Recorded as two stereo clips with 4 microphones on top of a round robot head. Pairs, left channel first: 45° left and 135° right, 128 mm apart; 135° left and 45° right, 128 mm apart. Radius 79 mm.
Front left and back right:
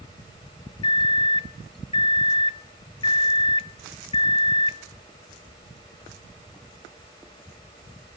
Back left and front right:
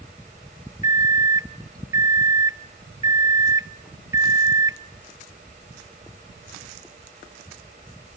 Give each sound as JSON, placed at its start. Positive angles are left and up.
{"t": 0.8, "sound": "a microwave", "azimuth_deg": 10, "distance_m": 0.6}